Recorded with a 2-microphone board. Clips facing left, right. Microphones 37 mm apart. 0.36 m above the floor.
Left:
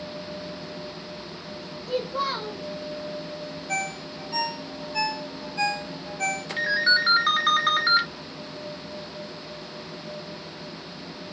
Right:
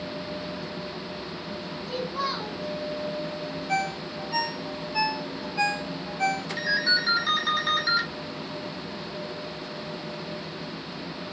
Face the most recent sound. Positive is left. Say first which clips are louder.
# left 5 dB
turn(degrees=45)  # may be behind; listen again after turning